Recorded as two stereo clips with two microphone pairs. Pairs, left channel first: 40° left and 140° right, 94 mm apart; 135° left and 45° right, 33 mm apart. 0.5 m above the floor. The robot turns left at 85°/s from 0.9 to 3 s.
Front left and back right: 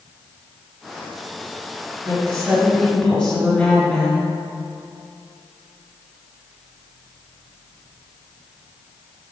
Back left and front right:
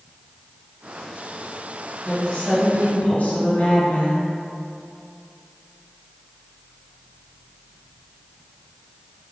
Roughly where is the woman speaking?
Behind.